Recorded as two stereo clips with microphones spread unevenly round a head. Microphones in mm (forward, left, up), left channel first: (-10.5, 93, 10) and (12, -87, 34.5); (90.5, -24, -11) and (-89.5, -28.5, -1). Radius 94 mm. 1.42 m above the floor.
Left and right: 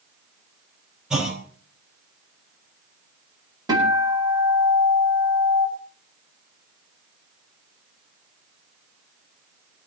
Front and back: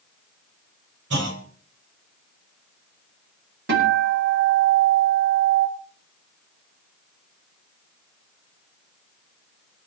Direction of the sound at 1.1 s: 165° right.